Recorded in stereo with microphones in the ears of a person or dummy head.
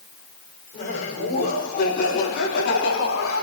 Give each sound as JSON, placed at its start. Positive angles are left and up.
{"t": 0.7, "sound": "laughter", "side_deg": 35, "distance_m": 5.5}